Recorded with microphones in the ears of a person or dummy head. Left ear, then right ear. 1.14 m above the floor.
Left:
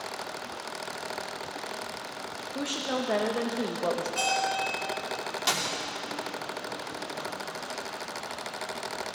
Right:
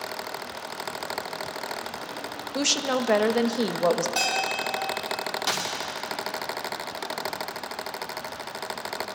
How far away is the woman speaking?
About 0.9 m.